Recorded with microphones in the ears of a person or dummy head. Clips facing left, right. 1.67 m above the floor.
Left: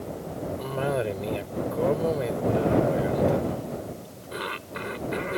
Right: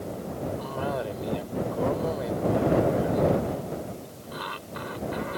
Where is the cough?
30° left (ahead or behind).